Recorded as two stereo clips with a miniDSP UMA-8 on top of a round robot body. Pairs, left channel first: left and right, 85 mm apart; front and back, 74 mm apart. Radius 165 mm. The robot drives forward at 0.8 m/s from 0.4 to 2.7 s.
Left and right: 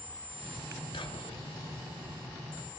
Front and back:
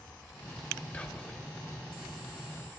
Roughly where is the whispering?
Left.